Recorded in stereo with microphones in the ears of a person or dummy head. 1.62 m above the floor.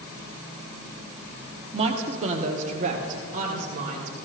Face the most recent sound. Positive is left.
turn(degrees=-45)  # may be behind; listen again after turning